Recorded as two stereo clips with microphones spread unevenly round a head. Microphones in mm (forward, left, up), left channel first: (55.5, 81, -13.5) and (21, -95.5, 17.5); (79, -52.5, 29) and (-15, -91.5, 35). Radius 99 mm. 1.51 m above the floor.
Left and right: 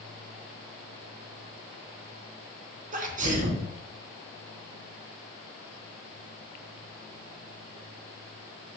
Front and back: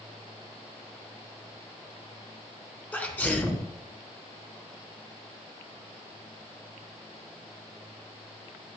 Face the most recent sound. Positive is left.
turn(degrees=-50)